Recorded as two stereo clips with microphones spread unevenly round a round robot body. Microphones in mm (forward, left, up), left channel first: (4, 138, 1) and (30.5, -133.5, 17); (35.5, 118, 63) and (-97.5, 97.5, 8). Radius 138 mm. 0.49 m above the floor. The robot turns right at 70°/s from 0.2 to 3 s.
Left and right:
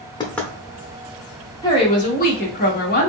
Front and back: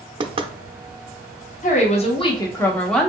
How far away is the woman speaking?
About 0.9 m.